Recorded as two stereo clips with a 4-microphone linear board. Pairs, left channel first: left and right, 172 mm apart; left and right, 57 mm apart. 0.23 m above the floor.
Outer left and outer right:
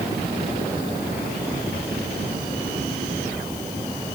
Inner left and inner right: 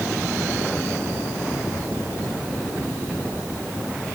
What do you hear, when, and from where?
Only background noise.